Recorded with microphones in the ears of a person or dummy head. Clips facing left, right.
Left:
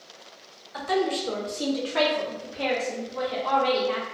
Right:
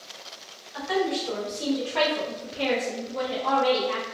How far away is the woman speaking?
About 0.9 m.